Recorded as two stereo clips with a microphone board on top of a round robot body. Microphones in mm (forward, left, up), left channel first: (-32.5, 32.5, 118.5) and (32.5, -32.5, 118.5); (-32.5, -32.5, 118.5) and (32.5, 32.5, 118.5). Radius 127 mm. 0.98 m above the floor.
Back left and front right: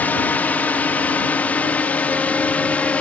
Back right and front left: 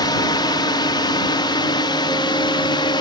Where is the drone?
160° right; by 3.0 s 155° right.